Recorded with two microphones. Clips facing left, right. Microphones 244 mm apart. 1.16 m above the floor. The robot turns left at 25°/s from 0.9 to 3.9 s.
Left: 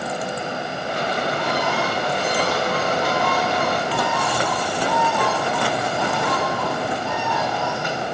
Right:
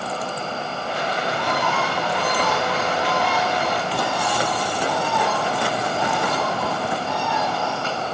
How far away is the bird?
About 4 m.